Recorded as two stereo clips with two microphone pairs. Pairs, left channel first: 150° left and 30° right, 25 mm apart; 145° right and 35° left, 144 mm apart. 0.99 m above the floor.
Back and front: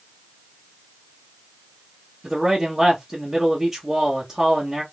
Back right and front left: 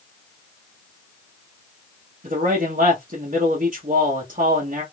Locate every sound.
2.2 s a man speaking: 40° left, 1.4 m